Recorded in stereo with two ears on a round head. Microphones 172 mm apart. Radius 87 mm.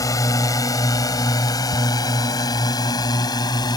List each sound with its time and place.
0.0 s a drone: 20° left (ahead or behind)
1.7 s ticking: 35° right (ahead or behind)